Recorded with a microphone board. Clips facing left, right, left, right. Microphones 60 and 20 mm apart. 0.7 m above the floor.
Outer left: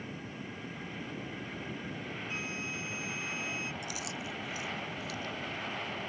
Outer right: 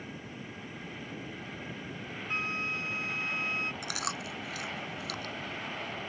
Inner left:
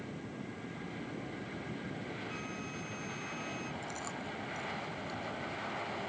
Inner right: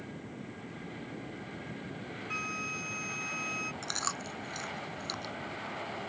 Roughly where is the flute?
Right.